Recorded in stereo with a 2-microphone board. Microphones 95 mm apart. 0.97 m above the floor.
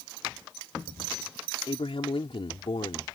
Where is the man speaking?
75° left (ahead or behind); by 3.1 s 65° left (ahead or behind).